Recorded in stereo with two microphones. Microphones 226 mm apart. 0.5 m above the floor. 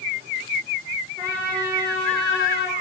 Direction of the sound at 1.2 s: 45° right (ahead or behind).